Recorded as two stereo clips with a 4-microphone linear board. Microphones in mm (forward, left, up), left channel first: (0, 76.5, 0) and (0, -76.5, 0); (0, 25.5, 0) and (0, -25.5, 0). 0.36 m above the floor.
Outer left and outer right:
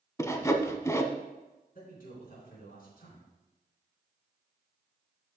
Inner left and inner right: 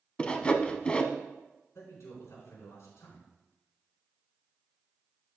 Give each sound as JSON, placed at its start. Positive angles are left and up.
{"t": 0.2, "sound": "sawing", "side_deg": 20, "distance_m": 0.7}
{"t": 1.8, "sound": "a man speaking", "side_deg": 70, "distance_m": 3.5}